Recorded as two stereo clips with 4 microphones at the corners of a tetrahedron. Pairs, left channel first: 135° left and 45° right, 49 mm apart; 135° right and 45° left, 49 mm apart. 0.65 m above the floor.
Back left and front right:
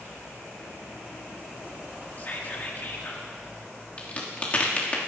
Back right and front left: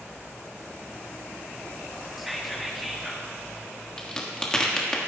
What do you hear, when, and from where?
2.2 s whispering: 135° left, 1.3 m
4.0 s a crack: 160° left, 1.4 m